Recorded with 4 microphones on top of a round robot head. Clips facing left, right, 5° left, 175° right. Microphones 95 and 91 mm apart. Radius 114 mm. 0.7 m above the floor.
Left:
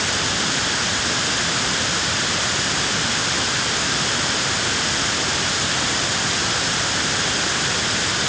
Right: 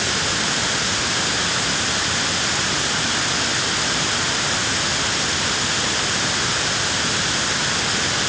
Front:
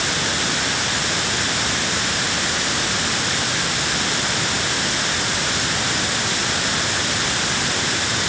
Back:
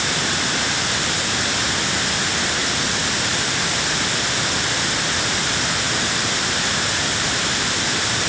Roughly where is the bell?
No bell in this recording.